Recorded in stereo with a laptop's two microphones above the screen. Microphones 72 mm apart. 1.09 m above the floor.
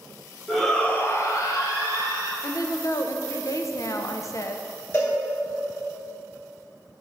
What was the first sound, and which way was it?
A shout, centre (ahead or behind).